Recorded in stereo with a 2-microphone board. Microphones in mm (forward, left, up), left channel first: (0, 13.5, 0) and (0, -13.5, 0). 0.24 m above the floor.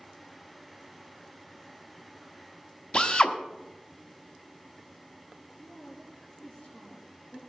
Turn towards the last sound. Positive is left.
turn(degrees=60)  # may be behind; listen again after turning